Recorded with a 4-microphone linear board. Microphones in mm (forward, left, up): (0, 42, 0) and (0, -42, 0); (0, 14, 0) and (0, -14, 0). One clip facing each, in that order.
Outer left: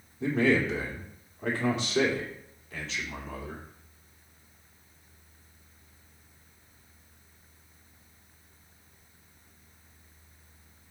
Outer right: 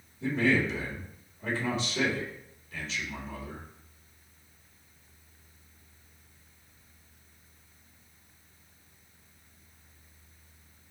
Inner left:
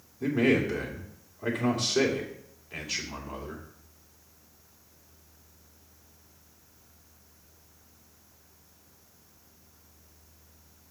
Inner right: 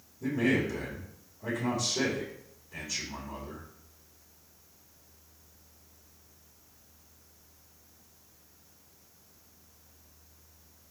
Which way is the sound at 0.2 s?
75° left (ahead or behind).